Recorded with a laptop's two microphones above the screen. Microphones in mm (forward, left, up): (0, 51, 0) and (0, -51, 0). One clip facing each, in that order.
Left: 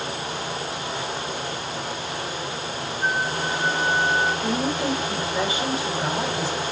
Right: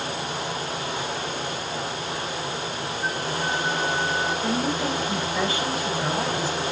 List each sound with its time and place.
3.0 s a flute: 75° left (ahead or behind), 2.5 m
4.4 s a woman speaking: 25° left (ahead or behind), 5.5 m